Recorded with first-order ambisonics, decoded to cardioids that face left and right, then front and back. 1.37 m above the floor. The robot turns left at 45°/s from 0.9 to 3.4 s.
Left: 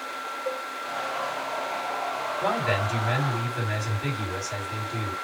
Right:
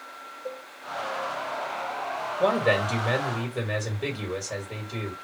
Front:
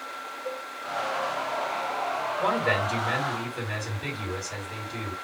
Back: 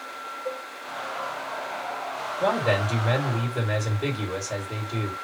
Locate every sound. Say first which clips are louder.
0.5 s a cowbell: left 5 dB, back 2 dB; 100° right, 1.3 m
2.4 s a man speaking: right 4 dB, back 3 dB; 105° right, 2 m; by 5.1 s 150° right, 2 m